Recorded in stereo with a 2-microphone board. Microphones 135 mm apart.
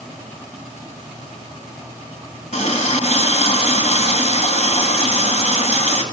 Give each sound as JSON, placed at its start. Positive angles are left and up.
{"t": 2.5, "sound": "a running tap", "side_deg": 60, "distance_m": 1.5}